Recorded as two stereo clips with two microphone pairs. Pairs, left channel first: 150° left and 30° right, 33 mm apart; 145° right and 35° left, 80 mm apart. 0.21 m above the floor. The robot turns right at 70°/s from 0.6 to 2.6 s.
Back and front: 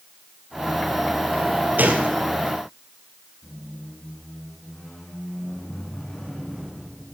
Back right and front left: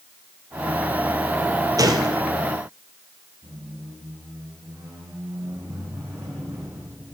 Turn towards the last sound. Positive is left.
turn(degrees=85)